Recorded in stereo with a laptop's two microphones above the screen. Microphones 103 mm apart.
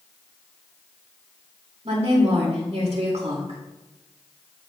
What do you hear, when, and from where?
1.9 s a woman speaking: 70° right (ahead or behind), 2 m